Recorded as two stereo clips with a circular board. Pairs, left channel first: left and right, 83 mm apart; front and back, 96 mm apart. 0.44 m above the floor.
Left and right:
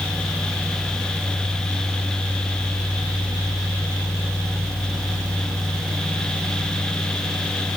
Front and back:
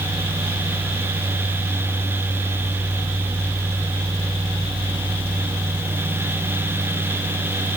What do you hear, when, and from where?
Only background noise.